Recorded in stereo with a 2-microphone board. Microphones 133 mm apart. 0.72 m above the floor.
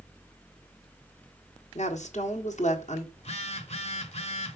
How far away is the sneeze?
I don't hear a sneeze.